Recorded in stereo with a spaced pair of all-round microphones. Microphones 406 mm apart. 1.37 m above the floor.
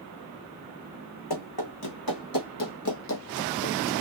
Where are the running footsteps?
65° left (ahead or behind), 3.5 m; by 3.9 s 20° left (ahead or behind), 1.9 m.